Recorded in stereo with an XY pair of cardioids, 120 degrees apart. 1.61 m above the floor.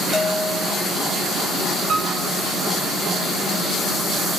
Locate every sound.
0.1 s a bell: 10° left, 4.5 m
1.9 s a piano: 45° right, 9 m